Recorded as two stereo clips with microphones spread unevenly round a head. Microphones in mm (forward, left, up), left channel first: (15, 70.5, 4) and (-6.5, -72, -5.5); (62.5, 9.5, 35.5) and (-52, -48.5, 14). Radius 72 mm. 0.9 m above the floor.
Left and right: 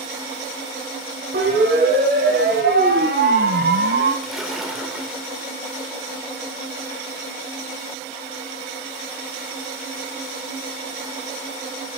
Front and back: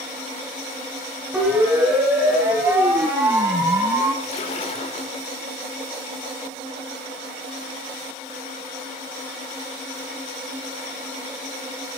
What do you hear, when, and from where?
1.3 s a siren: 75° right, 8 m; by 4.1 s 85° right, 8.5 m
4.2 s a splash: 10° right, 3.5 m